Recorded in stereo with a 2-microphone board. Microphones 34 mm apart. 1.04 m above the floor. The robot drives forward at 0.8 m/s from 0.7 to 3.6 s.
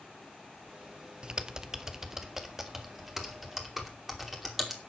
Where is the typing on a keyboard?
30° right (ahead or behind), 0.7 m; by 4.8 s 10° right (ahead or behind), 2.5 m.